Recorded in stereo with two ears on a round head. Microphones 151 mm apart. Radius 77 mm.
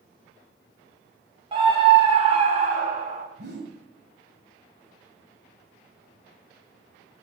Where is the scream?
30° right (ahead or behind), 3 m; by 3.2 s 50° right (ahead or behind), 4 m.